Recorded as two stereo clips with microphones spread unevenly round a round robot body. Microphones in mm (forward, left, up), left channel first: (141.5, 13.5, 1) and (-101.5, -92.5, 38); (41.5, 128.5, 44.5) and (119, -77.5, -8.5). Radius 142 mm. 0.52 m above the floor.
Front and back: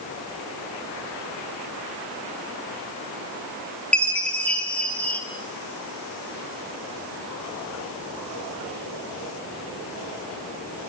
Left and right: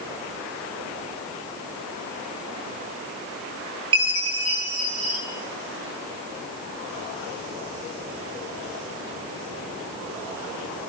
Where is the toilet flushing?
I don't hear a toilet flushing.